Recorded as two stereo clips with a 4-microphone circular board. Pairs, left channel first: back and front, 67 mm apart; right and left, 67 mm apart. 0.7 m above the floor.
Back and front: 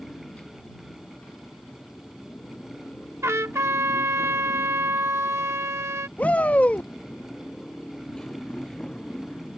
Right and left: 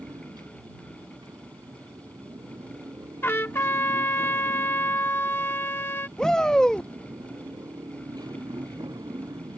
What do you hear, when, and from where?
0.0 s a motorcycle: 110° left; by 9.6 s 100° left
3.2 s a trumpet: 40° right
6.2 s a shout: 160° right